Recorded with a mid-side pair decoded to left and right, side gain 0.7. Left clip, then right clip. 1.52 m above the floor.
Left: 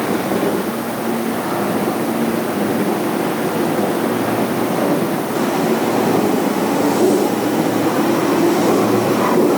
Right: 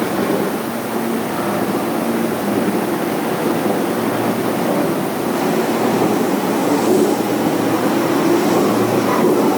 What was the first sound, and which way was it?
Only background noise.